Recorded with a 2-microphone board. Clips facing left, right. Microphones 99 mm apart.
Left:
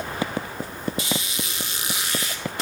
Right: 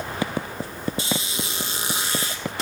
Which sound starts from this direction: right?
A squeak, at 1.0 s.